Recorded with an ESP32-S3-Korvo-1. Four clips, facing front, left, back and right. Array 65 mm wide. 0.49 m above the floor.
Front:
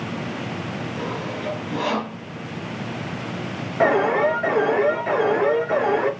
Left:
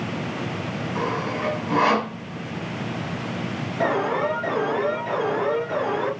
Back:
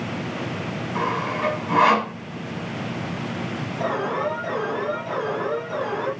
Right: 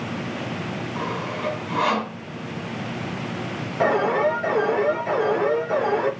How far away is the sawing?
About 3 m.